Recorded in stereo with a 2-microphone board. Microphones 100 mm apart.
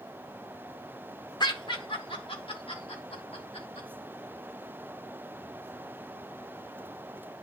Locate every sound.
1.4 s laughter: 45° left (ahead or behind), 1.3 m; by 3.9 s 70° left (ahead or behind), 4 m